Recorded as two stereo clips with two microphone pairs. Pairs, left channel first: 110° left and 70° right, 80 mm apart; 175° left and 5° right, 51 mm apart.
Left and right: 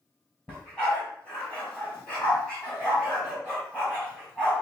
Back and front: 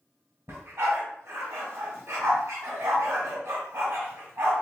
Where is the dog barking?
35° left, 2.5 m.